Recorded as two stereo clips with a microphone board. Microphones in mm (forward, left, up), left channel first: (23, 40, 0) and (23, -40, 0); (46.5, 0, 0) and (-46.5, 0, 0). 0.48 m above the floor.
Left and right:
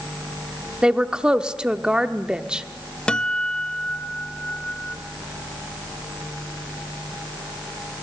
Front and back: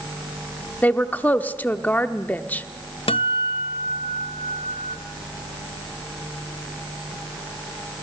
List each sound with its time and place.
0.8 s a woman speaking: 30° right, 0.8 m
3.1 s a guitar: 10° left, 0.6 m